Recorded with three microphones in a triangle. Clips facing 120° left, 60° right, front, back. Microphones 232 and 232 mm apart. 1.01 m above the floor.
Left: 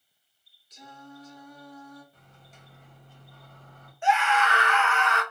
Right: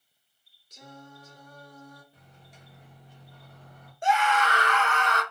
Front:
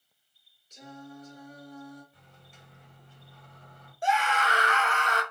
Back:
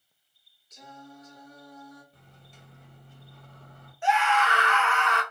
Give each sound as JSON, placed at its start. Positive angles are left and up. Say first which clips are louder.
{"t": 0.7, "sound": "singing", "louder": "left 1 dB, front 3 dB", "azimuth_deg": -50, "distance_m": 1.2}
{"t": 2.1, "sound": "a microwave", "louder": "right 1 dB, back 2 dB", "azimuth_deg": -135, "distance_m": 1.2}
{"t": 4.0, "sound": "a scream", "louder": "even, back 2 dB", "azimuth_deg": -30, "distance_m": 0.8}